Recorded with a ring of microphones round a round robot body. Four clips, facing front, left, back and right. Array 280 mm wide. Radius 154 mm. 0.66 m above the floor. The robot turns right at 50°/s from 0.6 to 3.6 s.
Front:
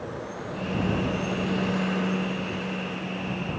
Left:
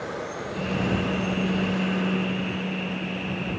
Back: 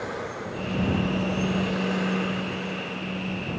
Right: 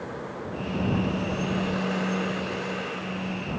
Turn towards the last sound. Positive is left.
No sound to turn to.